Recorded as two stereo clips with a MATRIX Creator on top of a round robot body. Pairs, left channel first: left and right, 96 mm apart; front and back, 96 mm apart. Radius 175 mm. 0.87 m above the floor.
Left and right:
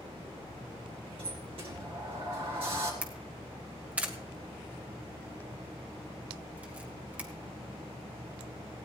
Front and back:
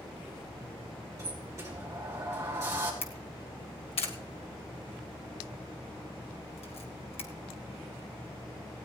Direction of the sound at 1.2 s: 120° right.